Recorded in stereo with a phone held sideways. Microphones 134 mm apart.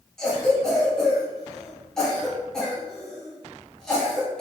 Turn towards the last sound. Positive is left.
turn(degrees=5)  # may be behind; listen again after turning